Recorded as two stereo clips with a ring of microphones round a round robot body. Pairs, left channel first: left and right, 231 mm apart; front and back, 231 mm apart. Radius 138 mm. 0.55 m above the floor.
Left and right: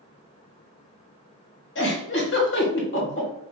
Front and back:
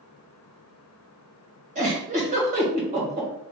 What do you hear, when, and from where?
1.8 s a giggle: 125° left, 1.9 m